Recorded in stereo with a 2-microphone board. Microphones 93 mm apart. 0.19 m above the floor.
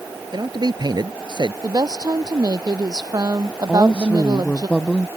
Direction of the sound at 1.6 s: 45° right (ahead or behind).